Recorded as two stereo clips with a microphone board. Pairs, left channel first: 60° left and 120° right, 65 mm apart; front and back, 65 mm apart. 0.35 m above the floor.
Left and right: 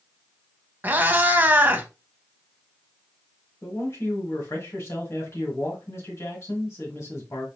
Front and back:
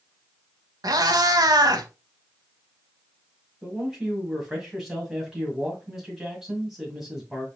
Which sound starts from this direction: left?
A man speaking, at 3.6 s.